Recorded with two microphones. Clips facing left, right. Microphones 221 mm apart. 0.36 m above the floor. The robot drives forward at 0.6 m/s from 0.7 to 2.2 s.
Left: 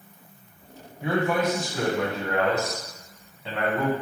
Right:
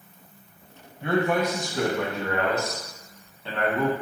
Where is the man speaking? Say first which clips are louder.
Right 1 dB; 5° left (ahead or behind), 1.8 m.